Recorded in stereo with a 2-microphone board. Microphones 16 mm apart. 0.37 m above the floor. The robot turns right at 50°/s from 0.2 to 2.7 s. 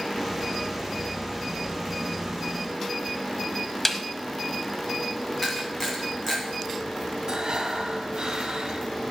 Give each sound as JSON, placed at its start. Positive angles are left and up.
{"t": 3.9, "sound": "a snare drum", "side_deg": 10, "distance_m": 0.7}
{"t": 5.4, "sound": "a camera shutter", "side_deg": 10, "distance_m": 4.0}
{"t": 7.3, "sound": "breathing", "side_deg": -60, "distance_m": 1.8}